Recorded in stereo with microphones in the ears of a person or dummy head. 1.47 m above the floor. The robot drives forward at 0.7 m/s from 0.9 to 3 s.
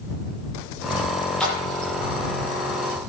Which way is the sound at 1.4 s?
Centre (ahead or behind).